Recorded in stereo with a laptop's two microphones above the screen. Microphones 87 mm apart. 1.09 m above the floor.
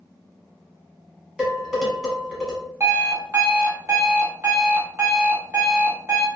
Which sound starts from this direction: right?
An alarm clock, at 2.8 s.